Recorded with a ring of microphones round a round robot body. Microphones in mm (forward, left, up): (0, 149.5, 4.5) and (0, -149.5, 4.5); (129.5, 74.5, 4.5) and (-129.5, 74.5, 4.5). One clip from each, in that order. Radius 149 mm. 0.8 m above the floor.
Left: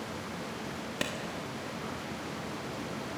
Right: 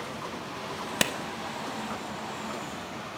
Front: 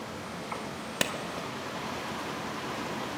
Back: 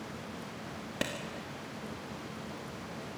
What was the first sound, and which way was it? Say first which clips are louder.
A clap: right 8 dB, front 5 dB; 45° right.